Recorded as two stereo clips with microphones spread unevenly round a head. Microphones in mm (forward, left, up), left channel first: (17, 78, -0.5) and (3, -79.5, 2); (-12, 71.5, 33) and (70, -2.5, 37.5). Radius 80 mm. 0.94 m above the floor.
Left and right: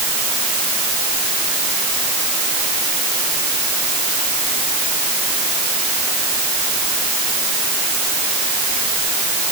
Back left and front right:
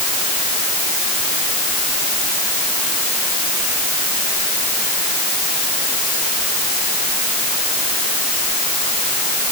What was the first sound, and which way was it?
Only background noise.